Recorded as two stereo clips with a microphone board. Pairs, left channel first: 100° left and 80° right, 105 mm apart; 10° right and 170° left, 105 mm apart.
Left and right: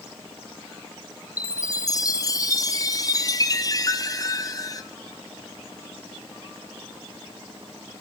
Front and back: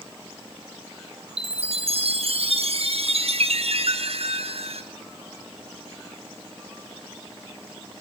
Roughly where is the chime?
Behind left.